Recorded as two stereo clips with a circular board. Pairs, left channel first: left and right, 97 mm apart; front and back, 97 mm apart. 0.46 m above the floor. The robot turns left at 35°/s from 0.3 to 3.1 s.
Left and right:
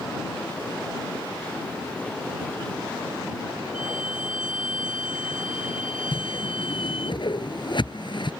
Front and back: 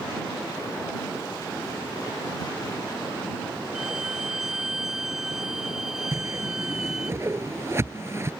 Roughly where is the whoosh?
Behind left.